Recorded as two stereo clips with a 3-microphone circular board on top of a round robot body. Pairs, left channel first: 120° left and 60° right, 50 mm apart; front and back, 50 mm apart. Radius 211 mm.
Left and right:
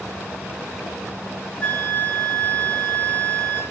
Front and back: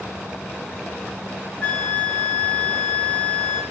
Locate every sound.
1.6 s a flute: 55° left, 2.5 m